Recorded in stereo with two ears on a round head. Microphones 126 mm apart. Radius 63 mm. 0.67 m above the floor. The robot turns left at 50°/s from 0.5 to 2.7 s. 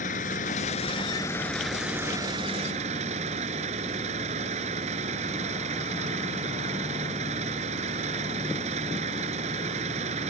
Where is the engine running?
60° left; by 10.3 s 50° right.